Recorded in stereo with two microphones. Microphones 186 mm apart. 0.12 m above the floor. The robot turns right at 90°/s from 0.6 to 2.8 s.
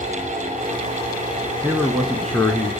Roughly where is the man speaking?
Centre.